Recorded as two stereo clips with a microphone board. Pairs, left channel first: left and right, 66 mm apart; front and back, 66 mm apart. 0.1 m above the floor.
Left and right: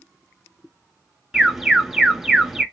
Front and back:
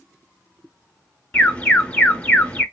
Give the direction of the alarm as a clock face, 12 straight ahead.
12 o'clock.